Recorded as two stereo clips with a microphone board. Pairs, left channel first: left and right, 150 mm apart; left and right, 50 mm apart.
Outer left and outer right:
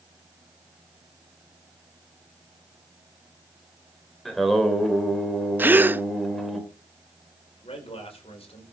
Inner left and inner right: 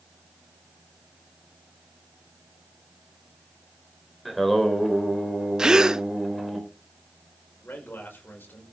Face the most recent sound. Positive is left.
turn(degrees=40)  # may be behind; listen again after turning